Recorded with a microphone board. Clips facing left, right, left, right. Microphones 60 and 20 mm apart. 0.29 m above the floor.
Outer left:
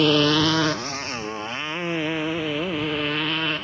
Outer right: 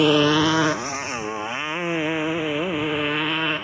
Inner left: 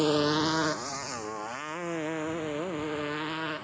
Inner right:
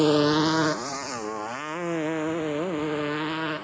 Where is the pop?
I don't hear a pop.